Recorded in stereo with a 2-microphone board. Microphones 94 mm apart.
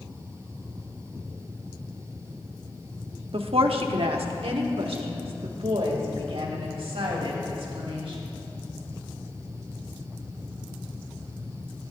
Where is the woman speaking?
80° right, 1.0 m.